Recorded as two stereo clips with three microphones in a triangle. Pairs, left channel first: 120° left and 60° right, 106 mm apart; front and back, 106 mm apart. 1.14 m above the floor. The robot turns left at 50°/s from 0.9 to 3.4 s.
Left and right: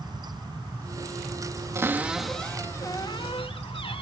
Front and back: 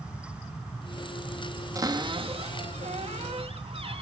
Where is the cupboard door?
125° right, 1.4 m; by 4.0 s 155° left, 1.4 m.